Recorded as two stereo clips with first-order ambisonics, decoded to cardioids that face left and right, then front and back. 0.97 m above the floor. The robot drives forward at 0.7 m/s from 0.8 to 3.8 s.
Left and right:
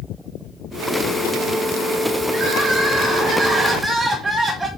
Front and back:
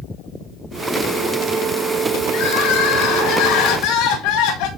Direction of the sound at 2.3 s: 15° right.